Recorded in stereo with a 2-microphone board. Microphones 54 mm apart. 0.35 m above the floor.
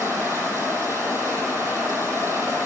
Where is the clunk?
I don't hear a clunk.